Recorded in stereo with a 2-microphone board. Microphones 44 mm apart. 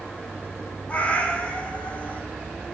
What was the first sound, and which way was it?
A cat meowing, 30° left (ahead or behind).